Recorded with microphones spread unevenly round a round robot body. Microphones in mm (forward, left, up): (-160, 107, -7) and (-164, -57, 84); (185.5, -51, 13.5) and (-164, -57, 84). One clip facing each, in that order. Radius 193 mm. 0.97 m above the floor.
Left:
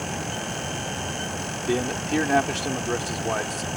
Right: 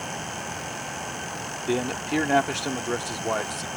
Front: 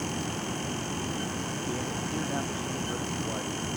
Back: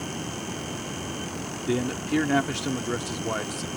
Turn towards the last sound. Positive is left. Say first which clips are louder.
# left 1 dB, back 11 dB
turn(degrees=175)